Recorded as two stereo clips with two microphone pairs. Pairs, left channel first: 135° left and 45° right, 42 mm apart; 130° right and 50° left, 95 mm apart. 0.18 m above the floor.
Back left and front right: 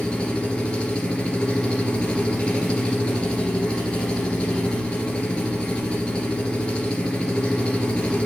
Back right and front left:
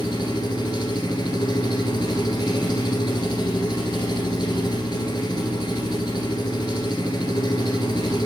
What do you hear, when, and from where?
0.0 s an engine running: 165° right, 2 m